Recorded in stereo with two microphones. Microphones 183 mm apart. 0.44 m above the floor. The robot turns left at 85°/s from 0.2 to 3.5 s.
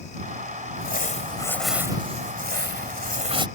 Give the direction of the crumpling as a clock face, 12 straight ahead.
9 o'clock.